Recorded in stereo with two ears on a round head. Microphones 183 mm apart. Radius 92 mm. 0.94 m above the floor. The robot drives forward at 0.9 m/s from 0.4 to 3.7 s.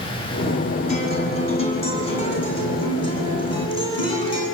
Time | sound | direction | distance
0.9 | a guitar | 35° left (ahead or behind) | 7.5 m